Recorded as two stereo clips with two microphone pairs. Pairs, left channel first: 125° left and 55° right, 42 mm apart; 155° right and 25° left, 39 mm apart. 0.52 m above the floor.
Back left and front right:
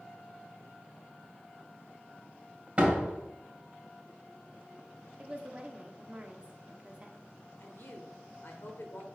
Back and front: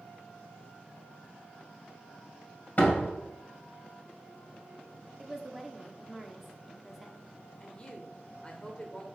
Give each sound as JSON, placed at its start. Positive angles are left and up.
{"t": 2.8, "sound": "a door slam", "azimuth_deg": -115, "distance_m": 1.7}
{"t": 5.2, "sound": "a woman speaking", "azimuth_deg": -65, "distance_m": 0.7}
{"t": 7.6, "sound": "a woman speaking", "azimuth_deg": 135, "distance_m": 1.4}